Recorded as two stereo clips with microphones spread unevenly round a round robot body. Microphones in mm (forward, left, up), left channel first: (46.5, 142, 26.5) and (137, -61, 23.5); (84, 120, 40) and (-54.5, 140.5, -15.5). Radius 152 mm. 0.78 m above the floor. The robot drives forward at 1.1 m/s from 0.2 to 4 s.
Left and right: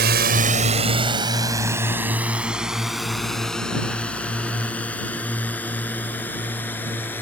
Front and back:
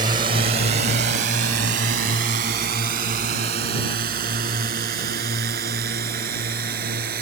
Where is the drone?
120° right; by 7.2 s 160° right.